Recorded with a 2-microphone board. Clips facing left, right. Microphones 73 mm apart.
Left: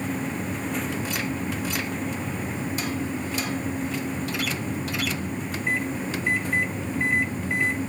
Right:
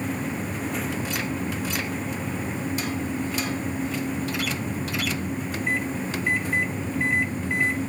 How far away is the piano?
I don't hear a piano.